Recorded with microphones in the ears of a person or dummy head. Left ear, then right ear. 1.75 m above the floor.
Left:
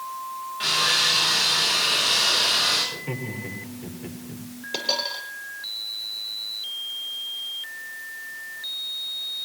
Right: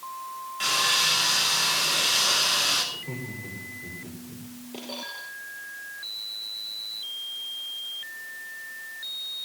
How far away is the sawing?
About 8 m.